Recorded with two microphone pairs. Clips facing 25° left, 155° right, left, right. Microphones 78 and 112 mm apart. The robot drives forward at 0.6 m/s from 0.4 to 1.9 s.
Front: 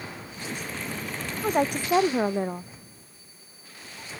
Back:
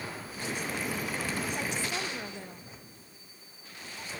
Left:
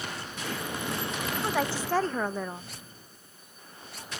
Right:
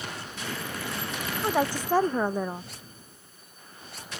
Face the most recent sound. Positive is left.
turn(degrees=-15)